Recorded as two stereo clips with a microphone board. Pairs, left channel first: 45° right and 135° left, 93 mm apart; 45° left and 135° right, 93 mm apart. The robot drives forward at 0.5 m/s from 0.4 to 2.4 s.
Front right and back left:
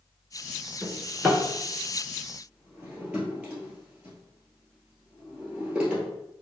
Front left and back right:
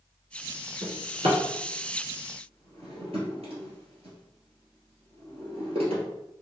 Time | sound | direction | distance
0.8 | a drawer | 135° right | 1.0 m